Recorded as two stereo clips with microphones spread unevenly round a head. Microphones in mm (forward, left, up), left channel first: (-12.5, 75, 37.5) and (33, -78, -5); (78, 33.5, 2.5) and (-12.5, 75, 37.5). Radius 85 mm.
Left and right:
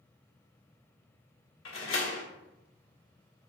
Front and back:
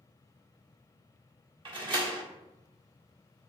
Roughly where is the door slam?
Behind left.